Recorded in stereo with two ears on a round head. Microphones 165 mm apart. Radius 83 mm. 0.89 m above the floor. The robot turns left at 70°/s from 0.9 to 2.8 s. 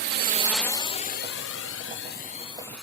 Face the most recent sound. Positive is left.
turn(degrees=0)  # may be behind; listen again after turning